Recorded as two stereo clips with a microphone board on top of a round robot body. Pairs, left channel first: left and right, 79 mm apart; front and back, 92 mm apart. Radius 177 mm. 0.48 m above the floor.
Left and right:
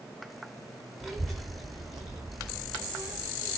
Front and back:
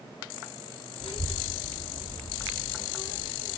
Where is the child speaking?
15° right, 1.0 m; by 3.6 s 45° right, 2 m.